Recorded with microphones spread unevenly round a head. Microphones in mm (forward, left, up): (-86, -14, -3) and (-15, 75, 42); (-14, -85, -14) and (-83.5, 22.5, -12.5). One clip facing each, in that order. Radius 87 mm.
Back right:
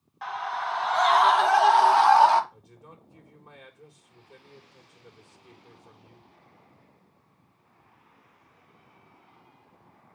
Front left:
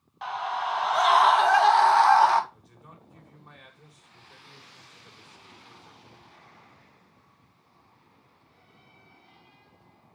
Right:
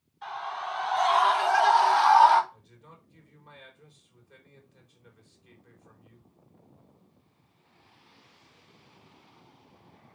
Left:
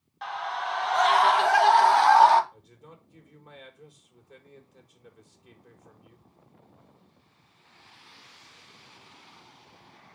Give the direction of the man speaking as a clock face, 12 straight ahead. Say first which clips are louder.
Back right 1 dB, left 3 dB; 6 o'clock.